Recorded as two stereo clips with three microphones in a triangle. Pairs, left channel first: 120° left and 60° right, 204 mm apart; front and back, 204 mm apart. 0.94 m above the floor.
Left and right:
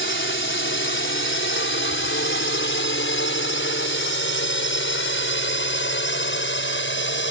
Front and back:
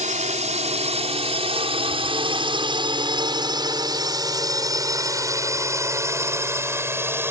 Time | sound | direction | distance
0.0 | a drone | 130° left | ?